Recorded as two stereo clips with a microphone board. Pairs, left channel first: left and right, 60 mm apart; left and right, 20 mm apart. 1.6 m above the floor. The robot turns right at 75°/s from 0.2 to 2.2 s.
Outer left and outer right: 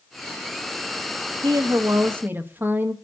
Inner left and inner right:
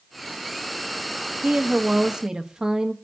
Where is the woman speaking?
95° right, 1.2 m; by 2.9 s 35° right, 1.2 m.